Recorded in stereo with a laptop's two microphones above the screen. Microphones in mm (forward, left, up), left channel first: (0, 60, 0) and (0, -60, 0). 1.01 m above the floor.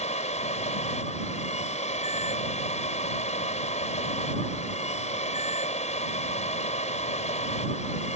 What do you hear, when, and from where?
0.0 s a machine running: 70° left (ahead or behind)